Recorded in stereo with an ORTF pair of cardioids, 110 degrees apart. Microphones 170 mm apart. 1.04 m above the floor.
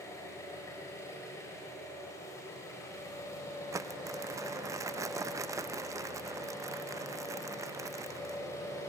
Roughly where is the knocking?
No knocking in this recording.